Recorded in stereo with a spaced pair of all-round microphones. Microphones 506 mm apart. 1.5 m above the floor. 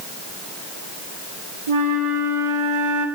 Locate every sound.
1.7 s a flute: 80° right, 1.4 m